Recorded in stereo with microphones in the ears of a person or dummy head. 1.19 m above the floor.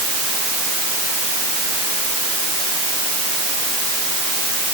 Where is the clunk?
No clunk in this recording.